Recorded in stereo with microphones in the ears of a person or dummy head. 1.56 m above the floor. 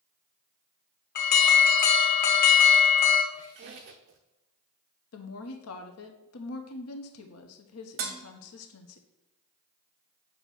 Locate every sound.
1.1 s an alarm: 50° left (ahead or behind), 1.1 m
3.3 s a squeak: 45° right (ahead or behind), 0.6 m
5.1 s a woman speaking: 85° left, 1.2 m
8.0 s dishes clattering: 45° right (ahead or behind), 0.9 m